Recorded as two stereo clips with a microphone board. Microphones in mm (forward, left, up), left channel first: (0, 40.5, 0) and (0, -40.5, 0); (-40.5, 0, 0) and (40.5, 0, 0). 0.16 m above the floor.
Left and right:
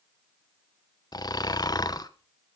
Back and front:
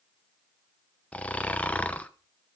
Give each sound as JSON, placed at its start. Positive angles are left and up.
{"t": 1.1, "sound": "snoring", "azimuth_deg": 110, "distance_m": 0.8}